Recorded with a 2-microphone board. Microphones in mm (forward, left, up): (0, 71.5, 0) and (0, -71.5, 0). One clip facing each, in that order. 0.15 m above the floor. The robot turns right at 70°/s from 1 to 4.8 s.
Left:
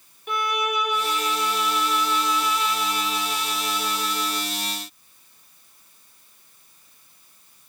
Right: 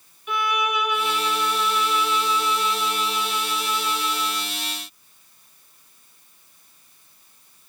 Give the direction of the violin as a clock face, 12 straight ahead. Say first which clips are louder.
Right 1 dB; 8 o'clock.